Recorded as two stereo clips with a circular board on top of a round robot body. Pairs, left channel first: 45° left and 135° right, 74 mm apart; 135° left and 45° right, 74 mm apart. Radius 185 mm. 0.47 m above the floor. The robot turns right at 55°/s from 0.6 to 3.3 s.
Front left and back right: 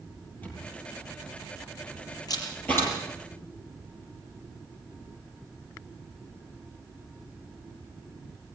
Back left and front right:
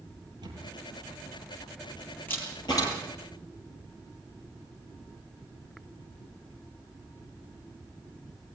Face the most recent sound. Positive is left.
turn(degrees=150)